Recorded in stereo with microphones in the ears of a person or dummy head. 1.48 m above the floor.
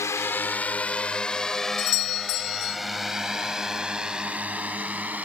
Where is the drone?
20° left (ahead or behind); by 5.2 s 5° right (ahead or behind).